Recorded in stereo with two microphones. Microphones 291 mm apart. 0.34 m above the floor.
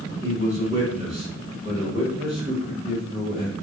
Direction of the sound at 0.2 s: 25° right (ahead or behind).